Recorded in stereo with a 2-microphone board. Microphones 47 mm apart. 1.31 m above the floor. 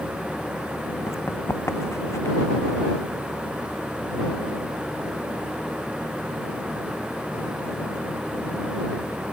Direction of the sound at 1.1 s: 75° left (ahead or behind).